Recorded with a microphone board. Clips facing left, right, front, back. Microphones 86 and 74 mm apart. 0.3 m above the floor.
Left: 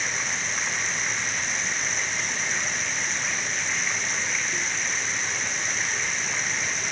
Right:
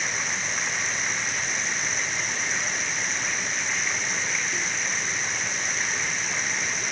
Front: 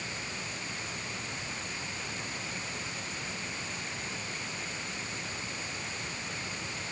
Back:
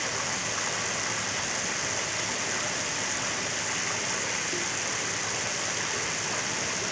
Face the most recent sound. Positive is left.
turn(degrees=180)